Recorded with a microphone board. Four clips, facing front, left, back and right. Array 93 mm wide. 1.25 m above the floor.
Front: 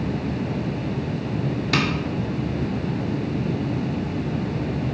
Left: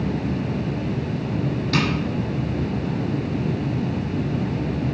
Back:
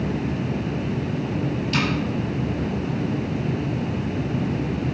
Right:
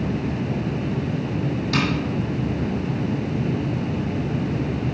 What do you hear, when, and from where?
1.7 s tapping: 5° right, 2.5 m